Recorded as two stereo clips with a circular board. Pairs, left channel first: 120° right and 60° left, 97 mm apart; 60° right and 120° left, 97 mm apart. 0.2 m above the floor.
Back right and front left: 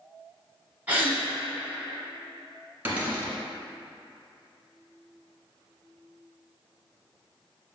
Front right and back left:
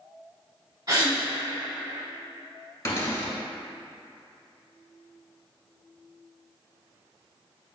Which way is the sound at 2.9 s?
10° right.